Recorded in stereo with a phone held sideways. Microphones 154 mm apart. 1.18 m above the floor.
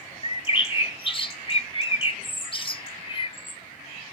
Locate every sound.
0.2 s a bird: 35° left (ahead or behind), 0.5 m